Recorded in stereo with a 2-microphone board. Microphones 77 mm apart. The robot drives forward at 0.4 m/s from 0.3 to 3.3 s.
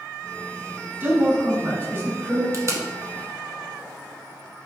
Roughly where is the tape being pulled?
Right.